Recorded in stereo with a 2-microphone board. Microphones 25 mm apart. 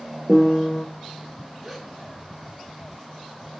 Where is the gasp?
10° right (ahead or behind), 1.3 m.